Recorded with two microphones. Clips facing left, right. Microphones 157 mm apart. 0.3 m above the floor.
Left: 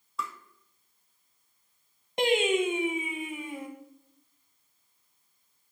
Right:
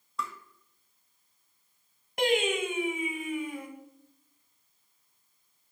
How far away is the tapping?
About 0.6 m.